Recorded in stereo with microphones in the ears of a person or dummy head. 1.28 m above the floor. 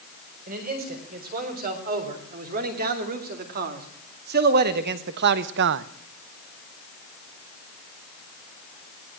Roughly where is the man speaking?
Right.